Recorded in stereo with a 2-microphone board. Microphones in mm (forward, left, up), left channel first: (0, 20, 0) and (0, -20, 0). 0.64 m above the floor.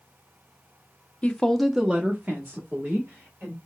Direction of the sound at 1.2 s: 30° left (ahead or behind).